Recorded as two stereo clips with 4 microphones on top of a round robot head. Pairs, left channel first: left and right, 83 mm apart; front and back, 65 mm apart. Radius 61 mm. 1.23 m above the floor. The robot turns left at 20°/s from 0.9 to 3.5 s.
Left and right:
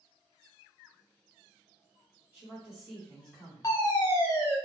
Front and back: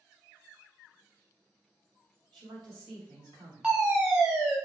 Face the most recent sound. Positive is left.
turn(degrees=120)